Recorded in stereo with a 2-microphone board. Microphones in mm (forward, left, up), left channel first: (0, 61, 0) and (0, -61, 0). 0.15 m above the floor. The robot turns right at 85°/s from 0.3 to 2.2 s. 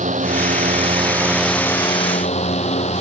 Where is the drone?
100° right; by 3.0 s 65° left.